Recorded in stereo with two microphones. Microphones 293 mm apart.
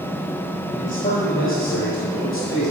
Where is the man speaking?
20° left (ahead or behind), 1.5 m; by 2.7 s 60° left (ahead or behind), 2 m.